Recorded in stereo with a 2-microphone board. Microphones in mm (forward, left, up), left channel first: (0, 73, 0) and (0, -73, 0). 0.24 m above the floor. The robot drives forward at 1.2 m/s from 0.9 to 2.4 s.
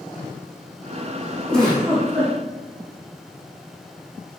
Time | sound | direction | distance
1.5 | a giggle | 5° left (ahead or behind) | 3.5 m